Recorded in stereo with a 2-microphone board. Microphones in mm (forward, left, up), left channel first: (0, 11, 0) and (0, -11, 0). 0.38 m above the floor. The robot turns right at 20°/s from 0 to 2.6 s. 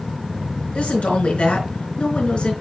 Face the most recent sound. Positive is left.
turn(degrees=135)